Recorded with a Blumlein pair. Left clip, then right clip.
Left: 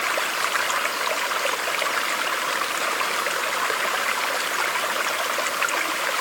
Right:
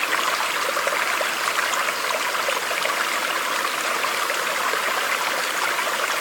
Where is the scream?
No scream in this recording.